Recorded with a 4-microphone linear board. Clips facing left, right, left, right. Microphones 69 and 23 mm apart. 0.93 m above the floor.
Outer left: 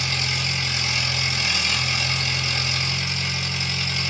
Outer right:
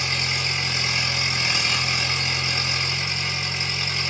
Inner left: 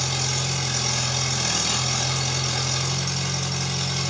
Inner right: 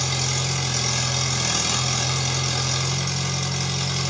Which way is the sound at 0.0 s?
30° right (ahead or behind).